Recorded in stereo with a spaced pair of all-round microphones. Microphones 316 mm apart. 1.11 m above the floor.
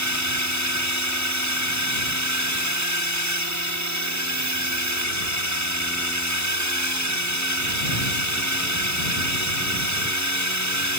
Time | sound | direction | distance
0.0 | a drone | 60° right (ahead or behind) | ?